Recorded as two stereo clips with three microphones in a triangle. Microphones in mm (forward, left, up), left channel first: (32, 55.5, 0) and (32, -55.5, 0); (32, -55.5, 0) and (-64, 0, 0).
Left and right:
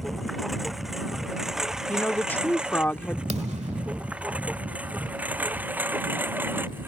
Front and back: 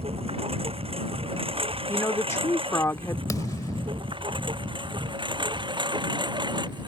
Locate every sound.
0.0 s a lawn mower: straight behind; by 6.9 s 165° right
1.9 s a woman speaking: 25° left
3.3 s a thud: 90° right